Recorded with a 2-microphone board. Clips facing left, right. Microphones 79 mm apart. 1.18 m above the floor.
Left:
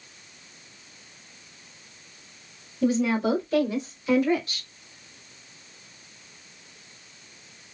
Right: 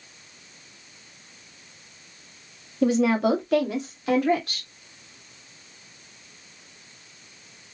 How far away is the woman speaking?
About 1.5 m.